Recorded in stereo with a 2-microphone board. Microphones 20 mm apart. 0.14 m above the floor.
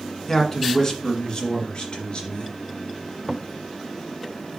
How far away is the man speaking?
About 1.6 m.